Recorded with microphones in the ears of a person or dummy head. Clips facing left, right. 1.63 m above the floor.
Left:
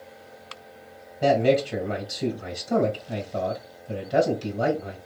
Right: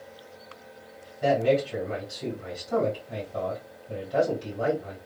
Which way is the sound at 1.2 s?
70° left (ahead or behind).